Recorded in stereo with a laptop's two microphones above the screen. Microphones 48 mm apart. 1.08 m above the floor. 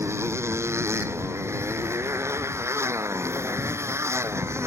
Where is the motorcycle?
75° right (ahead or behind).